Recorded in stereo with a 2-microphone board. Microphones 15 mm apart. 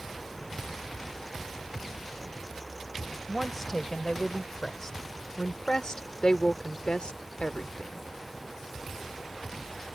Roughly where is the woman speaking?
Centre.